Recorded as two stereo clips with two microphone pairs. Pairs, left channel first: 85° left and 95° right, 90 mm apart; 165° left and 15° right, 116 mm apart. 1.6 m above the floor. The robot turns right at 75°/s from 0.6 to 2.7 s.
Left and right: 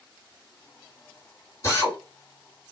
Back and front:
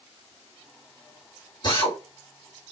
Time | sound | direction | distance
1.6 | a drill | 125° left | 1.7 m